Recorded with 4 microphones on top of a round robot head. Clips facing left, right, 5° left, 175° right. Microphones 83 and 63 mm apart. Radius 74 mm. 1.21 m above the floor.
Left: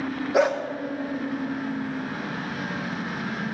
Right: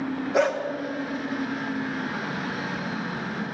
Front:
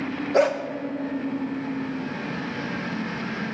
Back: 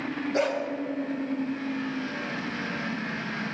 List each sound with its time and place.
0.3 s a dog barking: 10° left, 1.1 m